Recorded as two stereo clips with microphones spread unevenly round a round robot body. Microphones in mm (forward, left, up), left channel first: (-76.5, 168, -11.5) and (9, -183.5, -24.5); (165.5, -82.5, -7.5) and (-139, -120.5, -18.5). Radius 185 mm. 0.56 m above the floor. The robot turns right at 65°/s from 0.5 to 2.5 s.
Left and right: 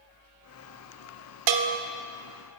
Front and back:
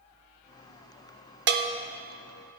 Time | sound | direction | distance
1.5 | a bell | 115° right | 0.6 m